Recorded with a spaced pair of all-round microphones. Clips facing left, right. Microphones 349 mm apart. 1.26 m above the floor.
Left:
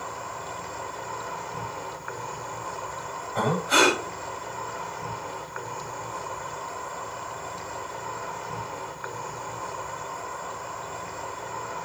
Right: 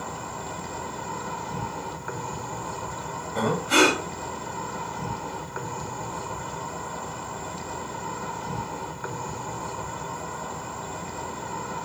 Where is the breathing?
40° right (ahead or behind), 3.5 m.